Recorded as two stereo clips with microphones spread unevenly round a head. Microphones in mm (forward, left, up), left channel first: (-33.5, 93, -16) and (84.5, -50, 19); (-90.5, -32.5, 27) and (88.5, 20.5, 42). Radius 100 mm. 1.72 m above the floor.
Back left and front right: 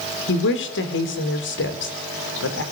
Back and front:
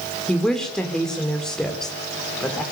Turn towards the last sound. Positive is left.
turn(degrees=110)